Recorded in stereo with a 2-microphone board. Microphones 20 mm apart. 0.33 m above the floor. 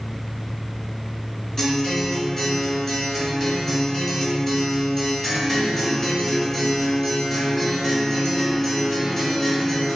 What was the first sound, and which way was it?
A guitar, 25° left (ahead or behind).